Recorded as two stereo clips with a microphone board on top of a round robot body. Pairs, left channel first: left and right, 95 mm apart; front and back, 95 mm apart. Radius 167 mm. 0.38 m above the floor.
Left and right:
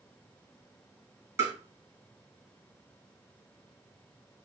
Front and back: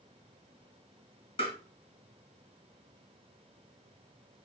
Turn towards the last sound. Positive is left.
turn(degrees=-30)